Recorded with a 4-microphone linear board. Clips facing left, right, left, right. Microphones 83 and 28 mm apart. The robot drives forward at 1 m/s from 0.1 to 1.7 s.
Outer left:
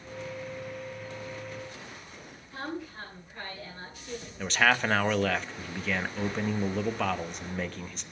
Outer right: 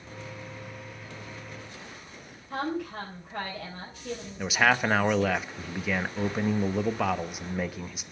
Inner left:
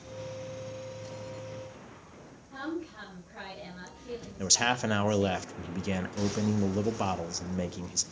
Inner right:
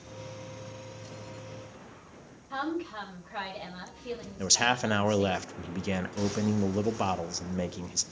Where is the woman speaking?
70° right (ahead or behind), 4.5 m.